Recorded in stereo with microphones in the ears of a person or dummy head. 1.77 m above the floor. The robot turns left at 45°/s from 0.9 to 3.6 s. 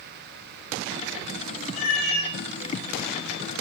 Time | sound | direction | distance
1.7 | a cat meowing | 40° left (ahead or behind) | 1.9 m